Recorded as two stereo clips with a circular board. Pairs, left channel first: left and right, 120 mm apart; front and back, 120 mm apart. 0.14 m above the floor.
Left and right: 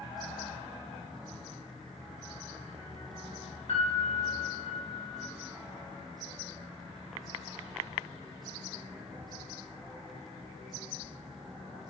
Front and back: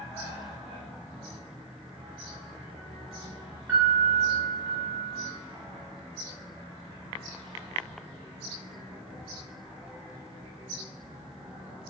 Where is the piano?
115° left, 1.1 m.